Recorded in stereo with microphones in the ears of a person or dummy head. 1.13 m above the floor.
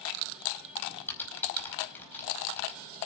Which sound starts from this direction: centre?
Typing on a keyboard, at 1.1 s.